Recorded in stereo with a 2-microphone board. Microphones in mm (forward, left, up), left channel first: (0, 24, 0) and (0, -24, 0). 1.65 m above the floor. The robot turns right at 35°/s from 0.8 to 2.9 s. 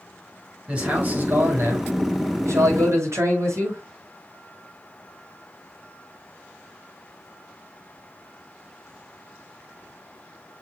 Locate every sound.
0.7 s a man speaking: 150° right, 6.5 m; by 3.8 s 75° right, 6.5 m